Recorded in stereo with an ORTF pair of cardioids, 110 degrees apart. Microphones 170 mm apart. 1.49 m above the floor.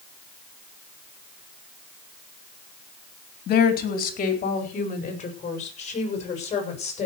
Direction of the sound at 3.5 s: 60° left.